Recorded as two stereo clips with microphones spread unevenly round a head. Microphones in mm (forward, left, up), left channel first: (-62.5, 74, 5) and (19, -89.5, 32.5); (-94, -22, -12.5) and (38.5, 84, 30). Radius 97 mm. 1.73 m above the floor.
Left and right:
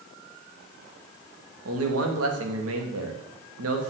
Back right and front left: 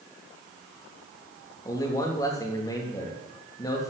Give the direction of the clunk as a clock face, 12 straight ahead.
No clunk in this recording.